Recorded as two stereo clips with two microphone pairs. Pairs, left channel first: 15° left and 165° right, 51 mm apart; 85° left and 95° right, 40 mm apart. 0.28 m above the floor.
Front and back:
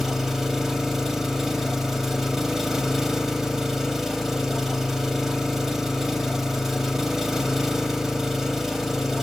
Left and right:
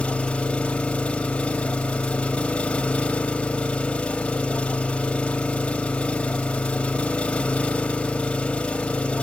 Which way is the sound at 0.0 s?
120° left.